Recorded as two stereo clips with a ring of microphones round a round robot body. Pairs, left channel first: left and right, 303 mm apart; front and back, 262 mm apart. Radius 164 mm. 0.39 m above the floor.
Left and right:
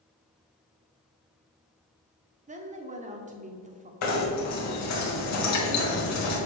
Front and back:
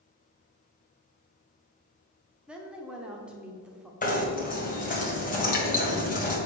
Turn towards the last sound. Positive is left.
turn(degrees=60)